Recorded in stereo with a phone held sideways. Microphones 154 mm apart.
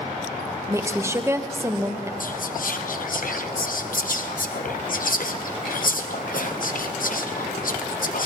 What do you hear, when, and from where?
0.7 s a woman speaking: 20° right (ahead or behind), 0.9 m
2.2 s whispering: 70° left (ahead or behind), 0.8 m